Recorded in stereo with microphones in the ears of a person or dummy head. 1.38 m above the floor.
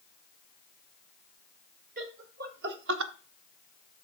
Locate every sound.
2.0 s laughter: 50° right (ahead or behind), 2.5 m; by 3.1 s 75° right (ahead or behind), 0.9 m